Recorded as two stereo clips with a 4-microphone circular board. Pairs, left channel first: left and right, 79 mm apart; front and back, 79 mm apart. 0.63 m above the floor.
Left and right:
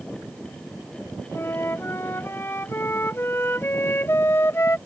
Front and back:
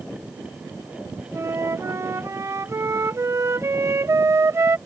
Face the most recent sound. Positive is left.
turn(degrees=135)